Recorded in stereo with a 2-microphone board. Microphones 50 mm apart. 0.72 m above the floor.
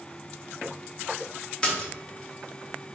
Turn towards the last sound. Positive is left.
turn(degrees=20)  # may be behind; listen again after turning